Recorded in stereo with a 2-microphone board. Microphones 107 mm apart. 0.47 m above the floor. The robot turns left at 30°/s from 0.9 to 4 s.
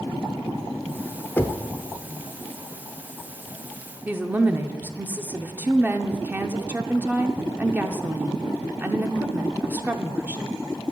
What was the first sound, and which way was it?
Knocking, 20° left (ahead or behind).